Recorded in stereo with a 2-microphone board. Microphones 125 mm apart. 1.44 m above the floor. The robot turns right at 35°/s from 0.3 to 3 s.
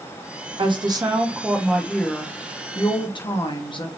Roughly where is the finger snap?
I don't hear a finger snap.